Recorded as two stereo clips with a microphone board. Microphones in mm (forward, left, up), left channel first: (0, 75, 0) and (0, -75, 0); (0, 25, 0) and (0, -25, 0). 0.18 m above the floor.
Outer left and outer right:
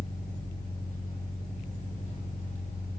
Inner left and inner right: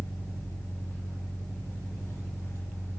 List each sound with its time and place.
0.0 s an engine running: 55° left (ahead or behind), 5 m